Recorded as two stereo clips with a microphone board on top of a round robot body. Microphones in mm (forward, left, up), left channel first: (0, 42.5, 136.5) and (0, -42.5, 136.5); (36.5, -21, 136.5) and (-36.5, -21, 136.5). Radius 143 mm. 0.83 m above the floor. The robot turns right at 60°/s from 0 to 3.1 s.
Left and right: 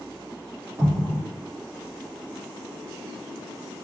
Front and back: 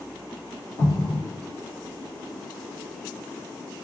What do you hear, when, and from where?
0.8 s an explosion: 25° right, 1.2 m; by 1.2 s straight ahead, 1.2 m